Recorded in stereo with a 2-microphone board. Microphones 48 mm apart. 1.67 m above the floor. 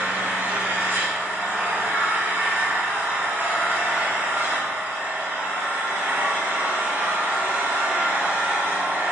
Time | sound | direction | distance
0.0 | an engine running | 45° right (ahead or behind) | 1.7 m